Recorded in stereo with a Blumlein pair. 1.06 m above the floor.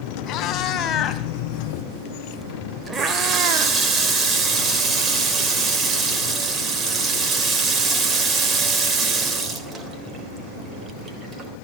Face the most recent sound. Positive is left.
turn(degrees=-25)